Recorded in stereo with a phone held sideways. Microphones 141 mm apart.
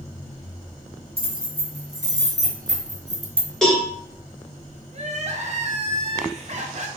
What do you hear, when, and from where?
1.2 s keys jangling: 45° right (ahead or behind), 1.7 m; by 3.5 s 30° right (ahead or behind), 0.7 m
3.6 s a cowbell: 5° left (ahead or behind), 1.2 m
4.9 s crying: 55° right (ahead or behind), 0.6 m